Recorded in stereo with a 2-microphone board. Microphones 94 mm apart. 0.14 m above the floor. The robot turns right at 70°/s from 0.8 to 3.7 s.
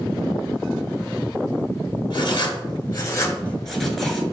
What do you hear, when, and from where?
2.1 s writing: 65° left, 0.8 m; by 4.2 s straight behind, 0.8 m